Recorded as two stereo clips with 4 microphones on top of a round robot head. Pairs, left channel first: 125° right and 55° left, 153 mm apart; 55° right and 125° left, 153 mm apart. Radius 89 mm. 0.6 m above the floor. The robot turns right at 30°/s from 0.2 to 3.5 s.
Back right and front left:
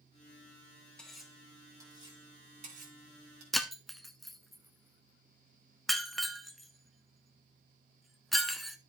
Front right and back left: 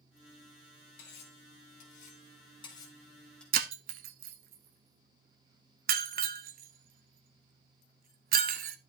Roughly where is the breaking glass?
Behind left.